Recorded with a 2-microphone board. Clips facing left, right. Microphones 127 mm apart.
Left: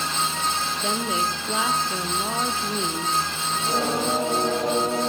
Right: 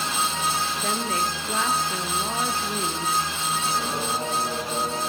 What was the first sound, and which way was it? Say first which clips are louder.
A woman speaking: left 3 dB; 10° left (ahead or behind).